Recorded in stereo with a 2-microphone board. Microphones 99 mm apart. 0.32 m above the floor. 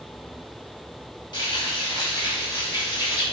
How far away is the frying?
About 2 m.